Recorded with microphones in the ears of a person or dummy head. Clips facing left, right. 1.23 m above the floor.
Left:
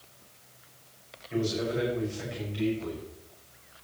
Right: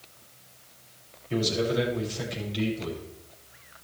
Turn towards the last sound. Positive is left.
turn(degrees=-55)  # may be behind; listen again after turning